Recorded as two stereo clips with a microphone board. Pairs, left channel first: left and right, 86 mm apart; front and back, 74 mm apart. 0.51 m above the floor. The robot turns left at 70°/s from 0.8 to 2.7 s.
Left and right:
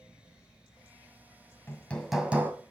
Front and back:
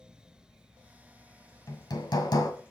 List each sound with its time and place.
1.7 s hammering: 30° left, 1.8 m; by 2.5 s 30° right, 1.8 m